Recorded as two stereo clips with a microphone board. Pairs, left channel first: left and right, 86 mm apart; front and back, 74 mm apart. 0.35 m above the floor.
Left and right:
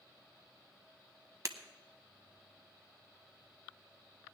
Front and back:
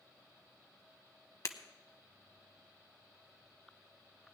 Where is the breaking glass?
45° right, 0.9 m.